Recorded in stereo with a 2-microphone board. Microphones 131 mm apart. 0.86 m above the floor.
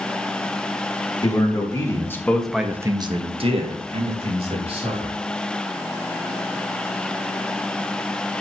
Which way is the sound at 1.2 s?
30° left (ahead or behind).